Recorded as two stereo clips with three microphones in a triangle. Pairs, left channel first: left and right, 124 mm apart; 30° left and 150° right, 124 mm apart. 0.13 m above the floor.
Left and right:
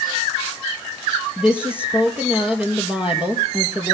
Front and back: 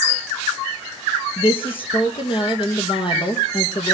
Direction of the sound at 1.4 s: 10° right.